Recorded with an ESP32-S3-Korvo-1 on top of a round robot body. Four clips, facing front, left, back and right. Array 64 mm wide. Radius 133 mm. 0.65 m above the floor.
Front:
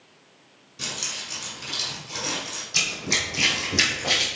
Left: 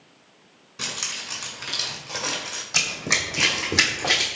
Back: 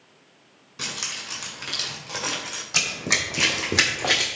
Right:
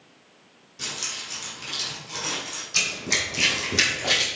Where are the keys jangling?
145° left, 3 m; by 2.6 s 160° left, 2.5 m.